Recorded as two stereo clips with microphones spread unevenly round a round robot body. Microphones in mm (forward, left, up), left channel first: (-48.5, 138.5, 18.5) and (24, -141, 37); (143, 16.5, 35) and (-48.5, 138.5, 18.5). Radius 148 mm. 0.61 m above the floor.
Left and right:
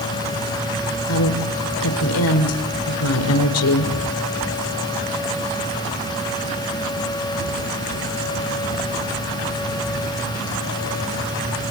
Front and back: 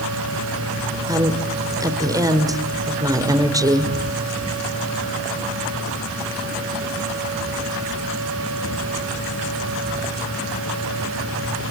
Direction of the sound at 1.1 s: 75° left.